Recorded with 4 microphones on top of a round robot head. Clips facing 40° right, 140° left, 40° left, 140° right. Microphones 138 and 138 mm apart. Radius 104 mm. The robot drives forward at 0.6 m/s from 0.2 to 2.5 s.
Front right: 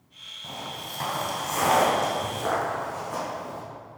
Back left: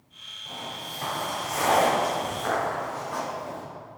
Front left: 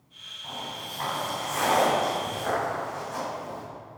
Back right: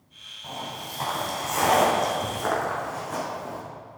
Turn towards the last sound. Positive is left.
turn(degrees=-110)